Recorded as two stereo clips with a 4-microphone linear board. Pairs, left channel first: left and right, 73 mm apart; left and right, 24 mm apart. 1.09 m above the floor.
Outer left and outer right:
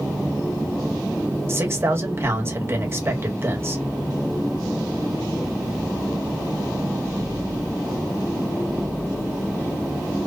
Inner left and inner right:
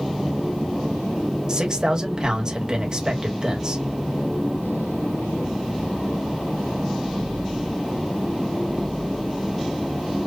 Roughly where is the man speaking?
Right.